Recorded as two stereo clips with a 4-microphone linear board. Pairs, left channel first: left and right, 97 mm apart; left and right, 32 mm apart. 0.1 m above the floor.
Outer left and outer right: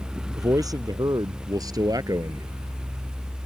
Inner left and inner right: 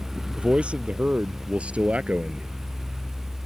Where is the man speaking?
40° right (ahead or behind).